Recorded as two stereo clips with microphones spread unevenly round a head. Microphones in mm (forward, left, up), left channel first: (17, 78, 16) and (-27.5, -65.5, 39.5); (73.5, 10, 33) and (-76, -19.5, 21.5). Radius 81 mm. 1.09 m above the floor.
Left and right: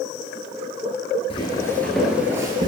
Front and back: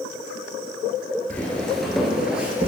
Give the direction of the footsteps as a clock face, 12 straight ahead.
10 o'clock.